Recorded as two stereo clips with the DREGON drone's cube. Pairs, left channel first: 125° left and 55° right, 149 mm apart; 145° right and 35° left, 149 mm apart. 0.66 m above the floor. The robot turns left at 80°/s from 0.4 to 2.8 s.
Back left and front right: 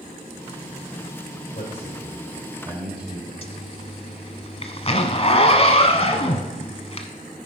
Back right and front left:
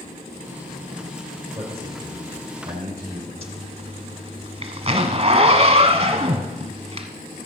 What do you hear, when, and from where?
1.6 s a man speaking: 100° left, 2.5 m; by 3.3 s straight ahead, 2.5 m
3.4 s a zipper: 80° left, 1.1 m